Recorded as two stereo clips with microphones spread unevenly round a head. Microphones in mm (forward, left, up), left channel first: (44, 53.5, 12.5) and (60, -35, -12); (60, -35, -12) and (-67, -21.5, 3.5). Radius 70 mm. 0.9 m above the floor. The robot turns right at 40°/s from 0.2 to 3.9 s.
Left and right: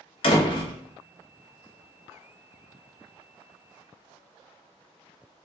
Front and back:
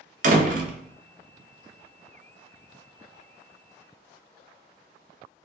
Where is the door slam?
150° left, 0.6 m; by 0.7 s 170° left, 0.6 m.